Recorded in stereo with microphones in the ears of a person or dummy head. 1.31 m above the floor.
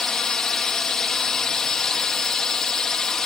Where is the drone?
Centre (ahead or behind).